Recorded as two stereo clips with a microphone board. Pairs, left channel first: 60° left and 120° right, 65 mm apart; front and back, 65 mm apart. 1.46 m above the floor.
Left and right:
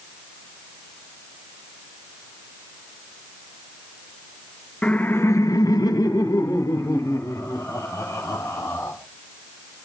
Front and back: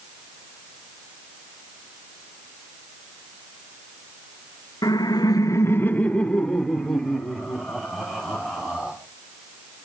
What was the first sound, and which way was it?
Laughter, 15° right.